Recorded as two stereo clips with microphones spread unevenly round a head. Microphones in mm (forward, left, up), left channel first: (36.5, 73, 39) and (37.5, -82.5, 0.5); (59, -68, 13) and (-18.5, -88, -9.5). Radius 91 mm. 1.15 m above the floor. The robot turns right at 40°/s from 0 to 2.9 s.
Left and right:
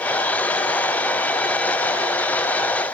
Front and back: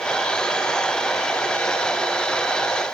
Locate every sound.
Only background noise.